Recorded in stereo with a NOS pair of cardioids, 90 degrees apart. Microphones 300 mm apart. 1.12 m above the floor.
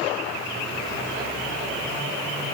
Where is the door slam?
I don't hear a door slam.